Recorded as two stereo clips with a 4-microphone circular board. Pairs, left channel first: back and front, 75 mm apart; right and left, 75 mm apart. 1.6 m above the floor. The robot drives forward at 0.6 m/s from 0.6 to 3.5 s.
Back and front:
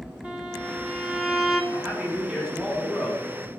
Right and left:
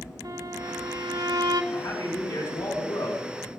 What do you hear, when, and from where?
0.2 s a violin: 75° left, 3 m; by 1.6 s 90° left, 2.5 m
1.7 s a man speaking: 70° right, 4 m; by 3.2 s 80° right, 3.5 m